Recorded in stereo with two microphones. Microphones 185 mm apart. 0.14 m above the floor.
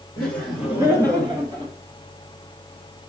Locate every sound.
0.2 s laughter: 15° left (ahead or behind), 1.3 m; by 1.7 s 35° right (ahead or behind), 1.9 m